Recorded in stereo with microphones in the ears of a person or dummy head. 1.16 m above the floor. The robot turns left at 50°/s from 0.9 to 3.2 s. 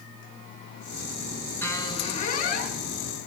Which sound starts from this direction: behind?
A squeak, at 1.6 s.